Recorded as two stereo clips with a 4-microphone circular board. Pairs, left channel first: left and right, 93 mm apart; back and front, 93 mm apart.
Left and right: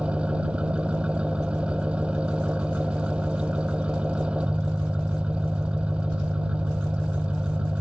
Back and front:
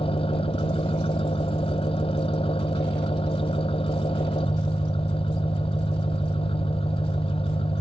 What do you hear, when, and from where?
0.0 s an engine running: 170° right